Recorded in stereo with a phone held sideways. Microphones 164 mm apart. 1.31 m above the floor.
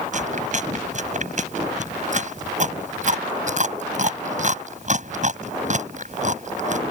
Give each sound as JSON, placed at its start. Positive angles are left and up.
{"t": 0.1, "sound": "chewing", "side_deg": -50}